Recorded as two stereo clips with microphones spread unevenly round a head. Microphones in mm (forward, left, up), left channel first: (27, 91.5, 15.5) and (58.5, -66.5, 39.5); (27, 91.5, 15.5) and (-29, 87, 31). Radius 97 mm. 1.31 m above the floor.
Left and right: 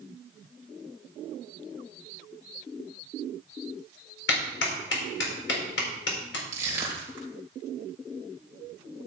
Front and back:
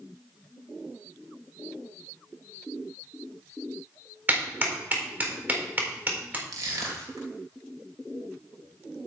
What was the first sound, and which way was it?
A clap, 130° left.